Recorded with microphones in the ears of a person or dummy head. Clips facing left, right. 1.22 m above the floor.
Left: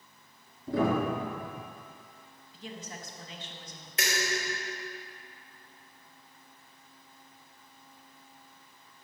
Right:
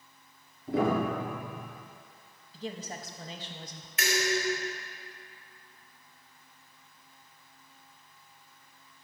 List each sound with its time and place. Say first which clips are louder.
0.7 s a piano: even; 45° left (ahead or behind), 3.5 m
2.5 s a woman speaking: right 5 dB; 35° right (ahead or behind), 0.8 m
4.0 s dishes clattering: right 4 dB; 35° left (ahead or behind), 2.5 m